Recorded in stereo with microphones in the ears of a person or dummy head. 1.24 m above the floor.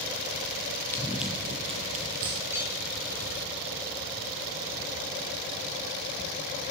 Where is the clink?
10° right (ahead or behind), 3.5 m.